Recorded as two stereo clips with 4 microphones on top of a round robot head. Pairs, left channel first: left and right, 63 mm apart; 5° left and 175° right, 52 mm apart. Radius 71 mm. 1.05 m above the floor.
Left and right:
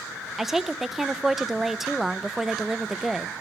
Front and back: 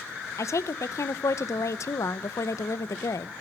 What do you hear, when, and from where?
0.4 s a woman speaking: 5° right, 0.7 m